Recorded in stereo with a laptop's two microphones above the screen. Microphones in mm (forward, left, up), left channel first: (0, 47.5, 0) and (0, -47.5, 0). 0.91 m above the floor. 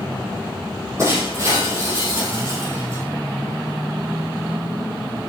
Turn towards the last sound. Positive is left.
turn(degrees=-35)  # may be behind; listen again after turning